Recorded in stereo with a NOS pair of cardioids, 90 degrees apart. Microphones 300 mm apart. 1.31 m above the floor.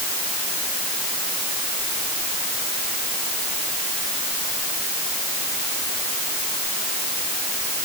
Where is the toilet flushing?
No toilet flushing in this recording.